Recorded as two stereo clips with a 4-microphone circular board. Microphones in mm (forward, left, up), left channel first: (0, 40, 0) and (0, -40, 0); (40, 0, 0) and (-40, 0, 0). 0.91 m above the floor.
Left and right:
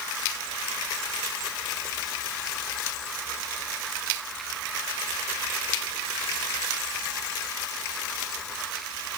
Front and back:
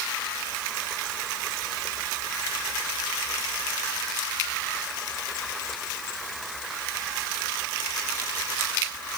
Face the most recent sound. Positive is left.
No sound to turn to.